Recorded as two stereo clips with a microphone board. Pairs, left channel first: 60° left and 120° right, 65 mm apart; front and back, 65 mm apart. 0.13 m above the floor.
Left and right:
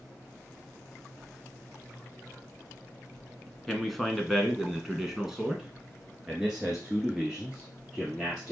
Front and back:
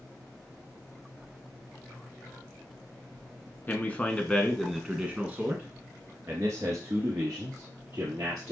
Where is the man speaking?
30° right, 1.2 m; by 8.5 s 160° left, 2.5 m.